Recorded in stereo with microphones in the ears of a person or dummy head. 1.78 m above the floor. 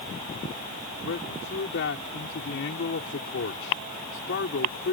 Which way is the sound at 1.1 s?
65° left (ahead or behind).